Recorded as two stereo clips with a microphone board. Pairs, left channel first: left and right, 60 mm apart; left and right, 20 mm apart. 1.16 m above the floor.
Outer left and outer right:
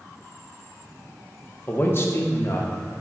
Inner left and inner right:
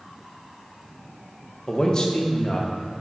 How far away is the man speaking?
About 1.3 m.